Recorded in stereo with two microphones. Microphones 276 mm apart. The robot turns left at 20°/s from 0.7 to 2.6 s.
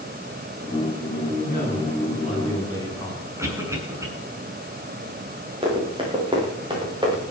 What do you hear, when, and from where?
1.4 s a man speaking: 40° left (ahead or behind), 7 m; by 3.2 s 15° left (ahead or behind), 7 m
3.4 s a cough: 10° right (ahead or behind), 7 m
5.6 s running footsteps: 20° right (ahead or behind), 7 m; by 7.3 s 15° right (ahead or behind), 8 m